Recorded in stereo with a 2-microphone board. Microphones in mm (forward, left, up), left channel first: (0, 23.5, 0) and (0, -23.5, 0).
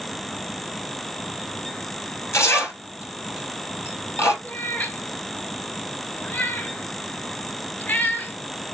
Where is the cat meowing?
40° left (ahead or behind), 0.8 m.